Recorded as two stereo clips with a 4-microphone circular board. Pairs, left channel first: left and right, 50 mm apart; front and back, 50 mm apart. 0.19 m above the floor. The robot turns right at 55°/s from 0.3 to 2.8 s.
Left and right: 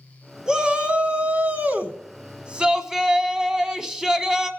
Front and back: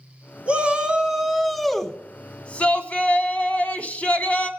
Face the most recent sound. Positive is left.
turn(degrees=-25)